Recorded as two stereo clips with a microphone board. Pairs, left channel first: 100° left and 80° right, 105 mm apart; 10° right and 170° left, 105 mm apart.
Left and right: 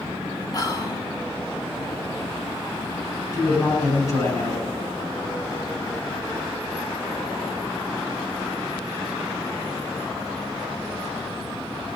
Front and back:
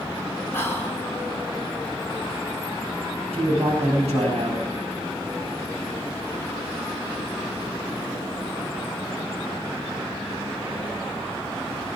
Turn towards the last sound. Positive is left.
turn(degrees=160)